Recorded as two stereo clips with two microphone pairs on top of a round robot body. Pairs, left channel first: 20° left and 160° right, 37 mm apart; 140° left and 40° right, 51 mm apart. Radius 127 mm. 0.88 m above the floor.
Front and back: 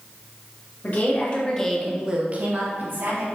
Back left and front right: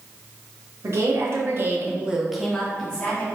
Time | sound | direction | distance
0.8 | a woman speaking | 20° right | 1.6 m